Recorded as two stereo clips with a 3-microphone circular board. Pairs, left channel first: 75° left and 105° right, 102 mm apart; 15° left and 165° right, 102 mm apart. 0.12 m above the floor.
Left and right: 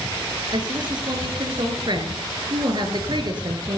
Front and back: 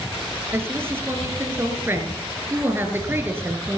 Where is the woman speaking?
105° right, 2 m.